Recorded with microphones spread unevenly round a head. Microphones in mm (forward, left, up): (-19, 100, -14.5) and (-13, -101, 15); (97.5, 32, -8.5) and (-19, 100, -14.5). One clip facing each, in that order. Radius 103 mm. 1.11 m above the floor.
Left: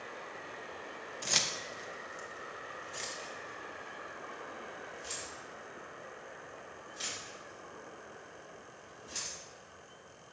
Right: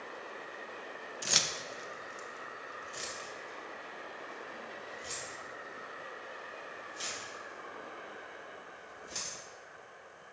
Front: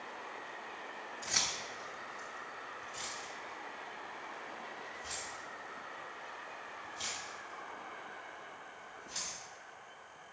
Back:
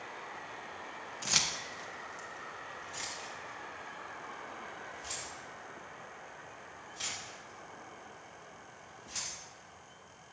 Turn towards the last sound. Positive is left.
turn(degrees=-175)